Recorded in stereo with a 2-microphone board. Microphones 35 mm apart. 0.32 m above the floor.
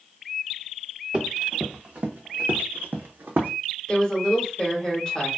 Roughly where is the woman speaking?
Left.